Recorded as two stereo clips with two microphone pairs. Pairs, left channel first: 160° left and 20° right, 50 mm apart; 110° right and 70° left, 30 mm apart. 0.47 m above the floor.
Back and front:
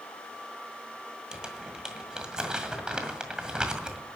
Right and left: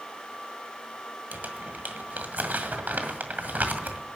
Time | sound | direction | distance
1.3 | crumpling | 55° left | 1.9 m